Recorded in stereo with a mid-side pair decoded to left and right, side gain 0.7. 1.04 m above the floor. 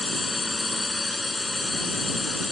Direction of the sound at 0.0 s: 15° left.